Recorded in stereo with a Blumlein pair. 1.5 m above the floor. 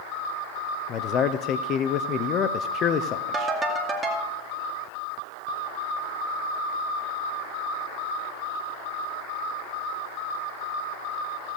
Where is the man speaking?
30° left, 0.6 m.